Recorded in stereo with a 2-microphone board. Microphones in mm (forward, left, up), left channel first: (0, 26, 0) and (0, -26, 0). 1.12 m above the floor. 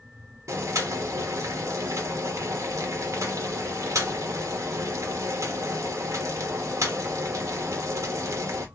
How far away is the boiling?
About 1.0 m.